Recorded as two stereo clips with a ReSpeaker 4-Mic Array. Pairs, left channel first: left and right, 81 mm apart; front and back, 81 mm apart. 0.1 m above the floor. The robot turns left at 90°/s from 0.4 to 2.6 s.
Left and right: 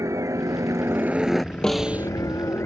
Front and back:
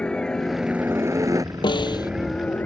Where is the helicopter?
75° right; by 2.7 s 55° left.